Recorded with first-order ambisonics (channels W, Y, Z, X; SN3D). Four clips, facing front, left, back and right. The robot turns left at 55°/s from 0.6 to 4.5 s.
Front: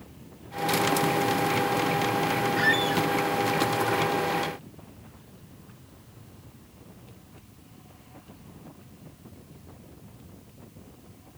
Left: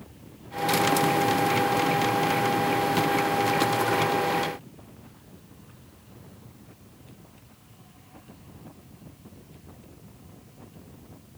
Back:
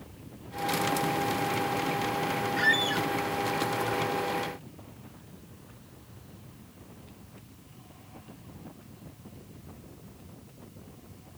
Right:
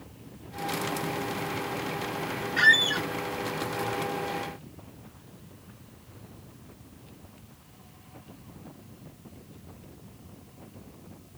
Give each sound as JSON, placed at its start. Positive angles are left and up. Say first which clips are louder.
{"t": 2.6, "sound": "a squeak", "louder": "right 3 dB, even", "azimuth_deg": -80}